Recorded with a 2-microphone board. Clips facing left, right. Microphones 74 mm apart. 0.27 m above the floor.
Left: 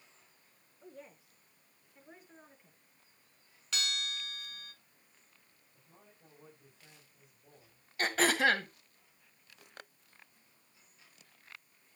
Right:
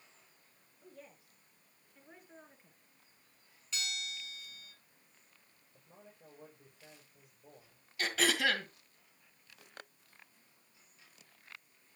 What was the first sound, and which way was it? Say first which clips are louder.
A woman speaking: left 3 dB; 35° left (ahead or behind).